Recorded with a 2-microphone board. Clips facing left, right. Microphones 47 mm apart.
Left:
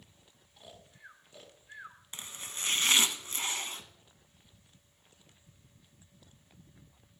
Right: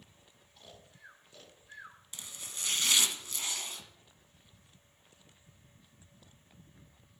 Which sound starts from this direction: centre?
Snoring, at 0.6 s.